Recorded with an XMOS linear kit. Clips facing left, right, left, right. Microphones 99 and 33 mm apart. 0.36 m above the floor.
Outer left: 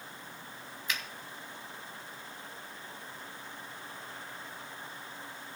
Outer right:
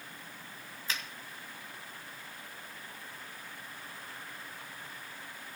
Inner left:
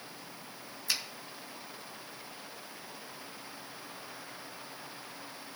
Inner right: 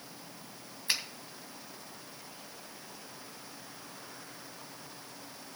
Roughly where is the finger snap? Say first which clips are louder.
Outer left 1 dB, inner right 2 dB; right.